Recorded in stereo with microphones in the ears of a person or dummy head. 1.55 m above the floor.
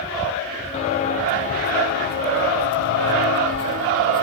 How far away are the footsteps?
About 3 m.